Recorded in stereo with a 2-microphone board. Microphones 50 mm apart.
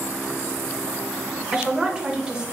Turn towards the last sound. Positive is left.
turn(degrees=-15)  # may be behind; listen again after turning